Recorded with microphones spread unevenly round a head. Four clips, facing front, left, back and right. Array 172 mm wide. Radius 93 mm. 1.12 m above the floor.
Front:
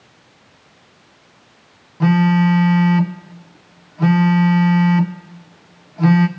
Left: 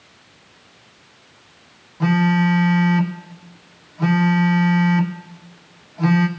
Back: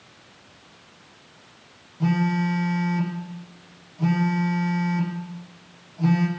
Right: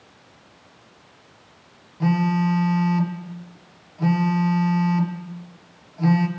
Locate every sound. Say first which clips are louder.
2.0 s a phone buzzing: left 3 dB, front 8 dB; 35° left, 0.7 m